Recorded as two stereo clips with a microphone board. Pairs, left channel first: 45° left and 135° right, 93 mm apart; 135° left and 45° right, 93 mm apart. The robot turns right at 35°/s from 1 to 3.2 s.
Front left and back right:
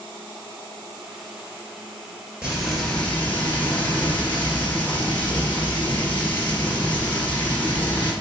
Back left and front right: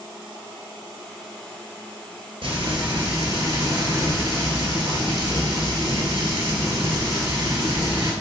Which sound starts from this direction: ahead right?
Frying, at 2.4 s.